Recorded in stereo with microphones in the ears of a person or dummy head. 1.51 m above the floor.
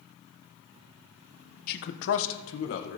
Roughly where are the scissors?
I don't hear scissors.